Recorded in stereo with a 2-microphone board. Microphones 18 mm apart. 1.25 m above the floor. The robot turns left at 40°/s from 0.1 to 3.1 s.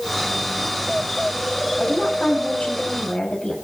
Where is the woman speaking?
110° left, 7.5 m; by 3.5 s 55° left, 7.5 m.